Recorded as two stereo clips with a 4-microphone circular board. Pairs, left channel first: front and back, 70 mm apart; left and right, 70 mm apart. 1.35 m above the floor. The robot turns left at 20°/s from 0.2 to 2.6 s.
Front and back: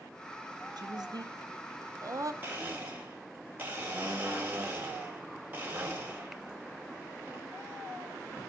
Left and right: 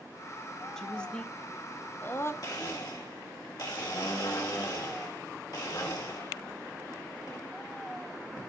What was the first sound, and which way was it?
A woman speaking, 175° left.